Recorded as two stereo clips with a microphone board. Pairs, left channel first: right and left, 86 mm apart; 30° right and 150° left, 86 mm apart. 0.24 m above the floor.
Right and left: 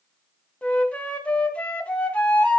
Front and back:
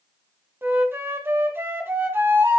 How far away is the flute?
About 1.3 m.